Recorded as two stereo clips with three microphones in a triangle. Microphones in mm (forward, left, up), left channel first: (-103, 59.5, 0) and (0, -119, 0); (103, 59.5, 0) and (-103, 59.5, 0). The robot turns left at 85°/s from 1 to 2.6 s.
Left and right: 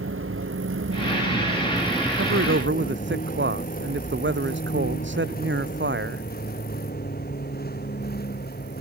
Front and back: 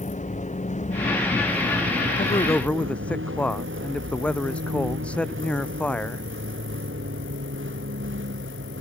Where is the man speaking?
50° right; by 6.2 s 85° right.